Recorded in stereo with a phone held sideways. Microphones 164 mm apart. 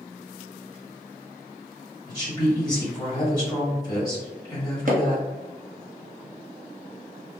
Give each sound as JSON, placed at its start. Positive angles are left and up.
{"t": 2.1, "sound": "a woman speaking", "side_deg": 20, "distance_m": 2.0}
{"t": 4.9, "sound": "hammering", "side_deg": -55, "distance_m": 0.7}